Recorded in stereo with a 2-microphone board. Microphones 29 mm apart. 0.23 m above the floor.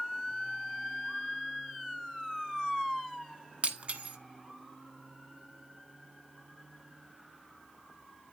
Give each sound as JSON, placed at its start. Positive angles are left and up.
{"t": 3.6, "sound": "breaking glass", "side_deg": -45, "distance_m": 1.0}